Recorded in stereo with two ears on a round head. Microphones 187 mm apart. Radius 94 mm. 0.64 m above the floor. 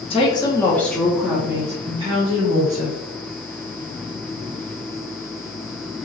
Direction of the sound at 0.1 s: 25° left (ahead or behind).